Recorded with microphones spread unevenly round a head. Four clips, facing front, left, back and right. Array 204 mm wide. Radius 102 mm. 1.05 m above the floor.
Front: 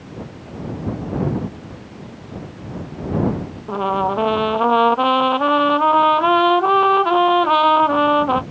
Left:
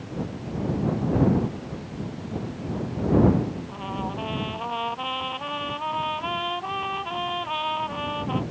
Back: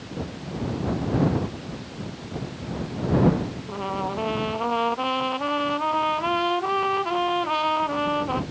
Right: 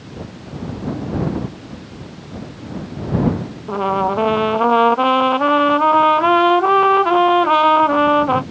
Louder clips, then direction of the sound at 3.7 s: Right 14 dB, front 11 dB; 60° right.